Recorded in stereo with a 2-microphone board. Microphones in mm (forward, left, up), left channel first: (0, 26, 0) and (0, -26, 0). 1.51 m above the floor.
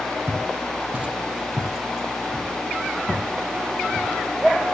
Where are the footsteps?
35° right (ahead or behind), 3.5 m; by 4.1 s 40° left (ahead or behind), 3.5 m.